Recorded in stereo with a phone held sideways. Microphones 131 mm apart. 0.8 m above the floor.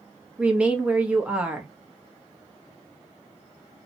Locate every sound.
0.4 s a woman speaking: 10° right (ahead or behind), 1.0 m